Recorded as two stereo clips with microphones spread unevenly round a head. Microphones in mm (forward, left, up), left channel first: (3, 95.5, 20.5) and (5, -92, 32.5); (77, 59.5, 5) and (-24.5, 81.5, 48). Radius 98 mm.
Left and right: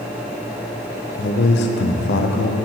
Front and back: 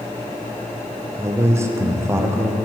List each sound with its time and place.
1.2 s a man speaking: 125° left, 0.5 m